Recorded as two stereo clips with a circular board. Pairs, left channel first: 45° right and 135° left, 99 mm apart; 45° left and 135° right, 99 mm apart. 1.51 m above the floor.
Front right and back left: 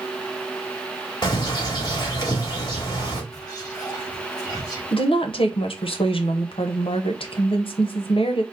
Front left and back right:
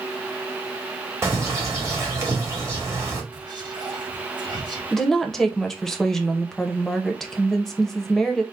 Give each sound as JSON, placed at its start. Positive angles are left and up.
{"t": 1.2, "sound": "a bird", "azimuth_deg": -80, "distance_m": 1.5}
{"t": 3.3, "sound": "whispering", "azimuth_deg": -95, "distance_m": 1.4}
{"t": 4.9, "sound": "a woman speaking", "azimuth_deg": -40, "distance_m": 0.7}